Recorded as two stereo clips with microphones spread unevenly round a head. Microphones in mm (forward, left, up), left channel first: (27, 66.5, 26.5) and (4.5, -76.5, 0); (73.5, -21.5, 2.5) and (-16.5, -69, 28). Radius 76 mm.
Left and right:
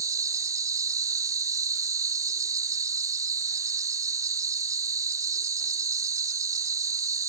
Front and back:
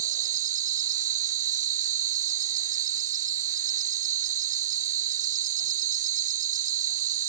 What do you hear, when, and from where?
0.0 s an insect: 170° right